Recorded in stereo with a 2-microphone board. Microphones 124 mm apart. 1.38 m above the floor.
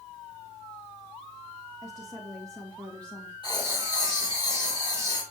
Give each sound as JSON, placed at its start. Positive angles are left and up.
{"t": 1.8, "sound": "a woman speaking", "side_deg": -5, "distance_m": 2.0}
{"t": 3.4, "sound": "writing", "side_deg": 35, "distance_m": 3.5}